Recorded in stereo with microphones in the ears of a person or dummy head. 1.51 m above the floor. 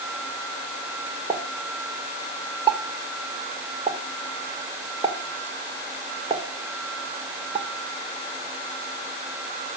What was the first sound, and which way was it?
A pop, 25° right (ahead or behind).